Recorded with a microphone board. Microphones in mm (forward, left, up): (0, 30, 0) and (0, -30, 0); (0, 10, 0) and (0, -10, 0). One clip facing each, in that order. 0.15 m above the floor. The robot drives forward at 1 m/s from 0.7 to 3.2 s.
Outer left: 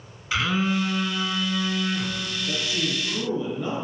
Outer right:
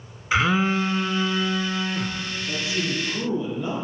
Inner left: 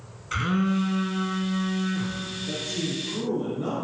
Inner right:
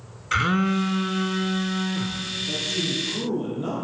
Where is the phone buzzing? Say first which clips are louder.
Outer right 3 dB, inner right 3 dB; 25° right (ahead or behind), 0.8 m; by 2.2 s 10° right (ahead or behind), 1.8 m.